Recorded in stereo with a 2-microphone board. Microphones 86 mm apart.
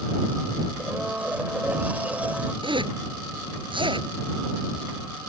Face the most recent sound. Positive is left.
turn(degrees=-70)  # may be behind; listen again after turning